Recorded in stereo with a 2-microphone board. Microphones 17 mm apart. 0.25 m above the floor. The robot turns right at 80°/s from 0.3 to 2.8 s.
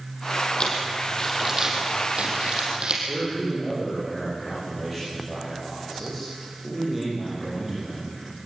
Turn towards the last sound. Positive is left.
turn(degrees=-20)  # may be behind; listen again after turning